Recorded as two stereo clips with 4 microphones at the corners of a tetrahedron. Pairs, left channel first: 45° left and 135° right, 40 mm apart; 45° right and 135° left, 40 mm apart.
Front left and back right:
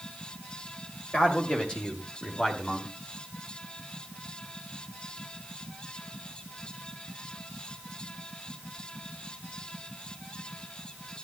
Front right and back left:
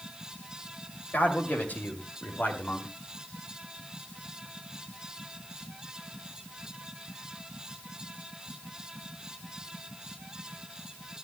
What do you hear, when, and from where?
1.1 s a man speaking: 10° right, 2.5 m; by 2.9 s 25° right, 1.9 m